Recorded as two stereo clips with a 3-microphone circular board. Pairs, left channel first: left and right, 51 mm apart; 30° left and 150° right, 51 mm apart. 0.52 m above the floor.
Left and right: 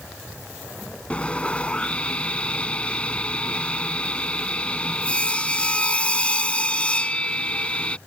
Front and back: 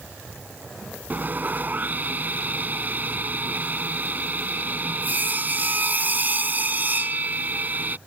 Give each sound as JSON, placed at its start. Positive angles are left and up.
{"t": 1.1, "sound": "sawing", "azimuth_deg": 155}